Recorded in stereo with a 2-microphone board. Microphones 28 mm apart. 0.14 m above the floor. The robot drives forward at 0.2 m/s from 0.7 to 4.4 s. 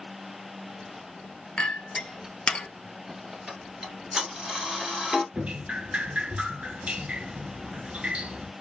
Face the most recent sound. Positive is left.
turn(degrees=-45)  # may be behind; listen again after turning